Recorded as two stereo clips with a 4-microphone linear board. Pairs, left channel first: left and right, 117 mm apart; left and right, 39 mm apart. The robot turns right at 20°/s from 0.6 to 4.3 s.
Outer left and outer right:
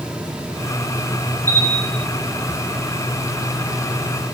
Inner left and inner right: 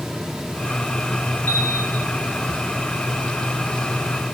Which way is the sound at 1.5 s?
20° left (ahead or behind).